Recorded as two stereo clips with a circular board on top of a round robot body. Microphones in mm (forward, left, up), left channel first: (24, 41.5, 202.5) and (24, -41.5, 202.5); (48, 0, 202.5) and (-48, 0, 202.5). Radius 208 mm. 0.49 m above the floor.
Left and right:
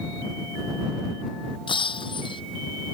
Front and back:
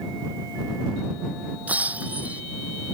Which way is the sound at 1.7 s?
105° left.